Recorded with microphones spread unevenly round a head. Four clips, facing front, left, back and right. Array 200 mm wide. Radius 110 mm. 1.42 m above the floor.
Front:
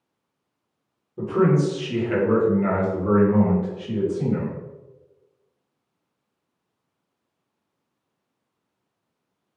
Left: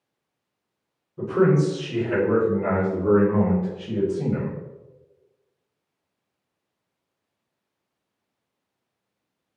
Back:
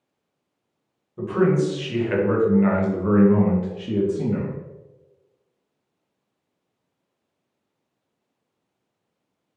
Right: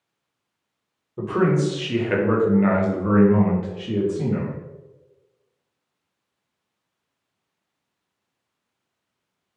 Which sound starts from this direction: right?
A man speaking, at 1.2 s.